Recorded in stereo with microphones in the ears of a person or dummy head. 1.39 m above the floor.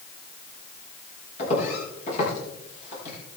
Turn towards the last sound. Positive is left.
turn(degrees=45)  # may be behind; listen again after turning